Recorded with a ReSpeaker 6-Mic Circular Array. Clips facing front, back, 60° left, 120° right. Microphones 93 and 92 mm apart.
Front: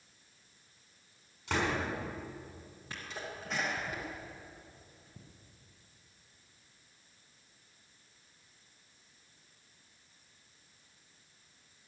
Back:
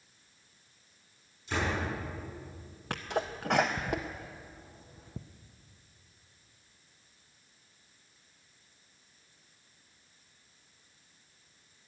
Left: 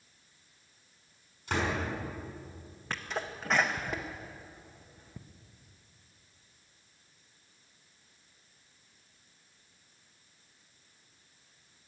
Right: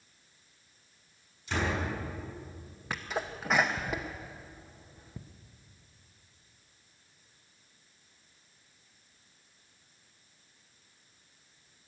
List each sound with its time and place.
1.5 s a door slam: 25° left, 6.5 m
2.9 s a sneeze: 155° left, 0.6 m